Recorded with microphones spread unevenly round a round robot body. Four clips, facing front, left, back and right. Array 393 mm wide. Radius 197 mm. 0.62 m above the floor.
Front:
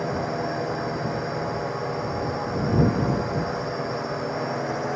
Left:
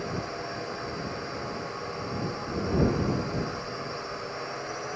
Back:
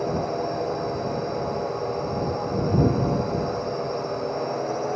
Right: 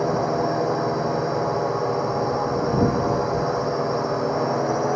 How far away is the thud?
I don't hear a thud.